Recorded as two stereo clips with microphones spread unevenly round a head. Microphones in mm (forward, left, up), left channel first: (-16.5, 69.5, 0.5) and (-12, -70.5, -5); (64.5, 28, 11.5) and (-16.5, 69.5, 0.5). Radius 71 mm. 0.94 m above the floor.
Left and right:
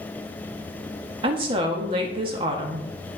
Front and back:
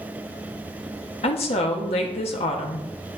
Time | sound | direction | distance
1.2 | a woman speaking | 35° right | 1.6 m